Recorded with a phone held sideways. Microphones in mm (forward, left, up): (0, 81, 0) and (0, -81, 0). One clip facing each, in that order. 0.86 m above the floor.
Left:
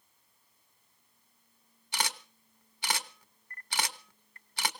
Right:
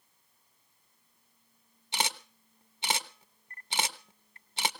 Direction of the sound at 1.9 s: 25° right (ahead or behind).